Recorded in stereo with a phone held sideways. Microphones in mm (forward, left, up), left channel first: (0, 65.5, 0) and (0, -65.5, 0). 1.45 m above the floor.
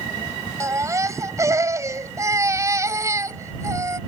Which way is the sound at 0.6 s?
25° right (ahead or behind).